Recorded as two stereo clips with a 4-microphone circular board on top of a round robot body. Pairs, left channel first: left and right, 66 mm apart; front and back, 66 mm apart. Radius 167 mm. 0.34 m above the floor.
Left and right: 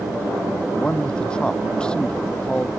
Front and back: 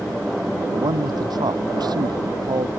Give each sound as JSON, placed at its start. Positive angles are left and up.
{"t": 0.7, "sound": "a man speaking", "azimuth_deg": 165}